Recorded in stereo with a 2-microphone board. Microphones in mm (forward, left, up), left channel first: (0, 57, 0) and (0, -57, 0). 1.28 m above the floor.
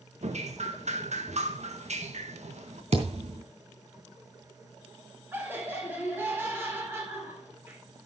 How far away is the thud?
About 3 m.